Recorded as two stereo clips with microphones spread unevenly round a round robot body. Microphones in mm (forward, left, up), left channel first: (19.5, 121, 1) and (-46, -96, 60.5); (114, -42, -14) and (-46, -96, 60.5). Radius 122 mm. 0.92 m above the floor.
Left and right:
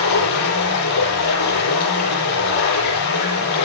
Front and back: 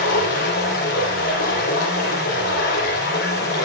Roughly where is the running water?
Left.